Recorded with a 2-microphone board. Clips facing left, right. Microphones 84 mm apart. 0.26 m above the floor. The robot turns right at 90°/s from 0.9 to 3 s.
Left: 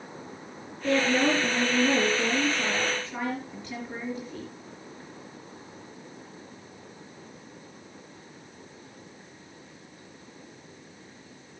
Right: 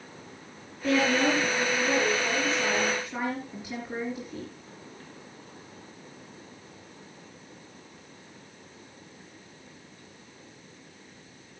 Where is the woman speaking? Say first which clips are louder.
Even; straight ahead, 5.5 m; by 4.5 s 170° right, 5.5 m.